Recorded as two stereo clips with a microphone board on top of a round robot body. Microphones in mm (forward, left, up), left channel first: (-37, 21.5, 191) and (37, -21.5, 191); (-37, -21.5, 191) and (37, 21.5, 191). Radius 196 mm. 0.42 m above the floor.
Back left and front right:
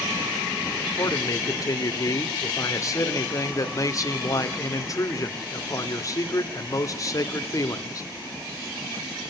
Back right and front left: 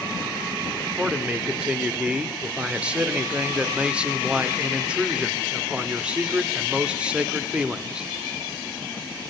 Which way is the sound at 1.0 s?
105° left.